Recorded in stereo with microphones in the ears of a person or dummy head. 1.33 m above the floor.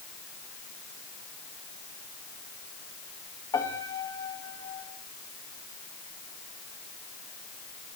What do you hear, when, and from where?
3.5 s a piano: 30° left (ahead or behind), 2.5 m